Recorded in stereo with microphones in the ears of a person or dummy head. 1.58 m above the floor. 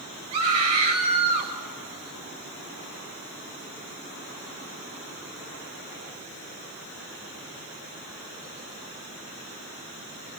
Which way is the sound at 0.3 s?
30° right (ahead or behind).